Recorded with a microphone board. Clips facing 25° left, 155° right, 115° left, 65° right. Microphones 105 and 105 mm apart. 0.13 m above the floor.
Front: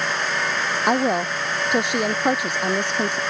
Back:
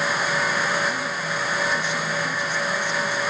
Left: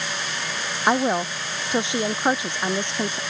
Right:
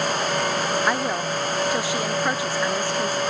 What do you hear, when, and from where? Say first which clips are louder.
0.9 s a woman speaking: front 7 dB, left 2 dB; 45° left